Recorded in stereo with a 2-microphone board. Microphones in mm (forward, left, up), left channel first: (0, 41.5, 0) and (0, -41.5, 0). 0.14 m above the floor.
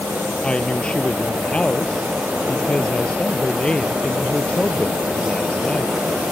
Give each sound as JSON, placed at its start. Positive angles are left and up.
{"t": 0.4, "sound": "a woman speaking", "side_deg": 15}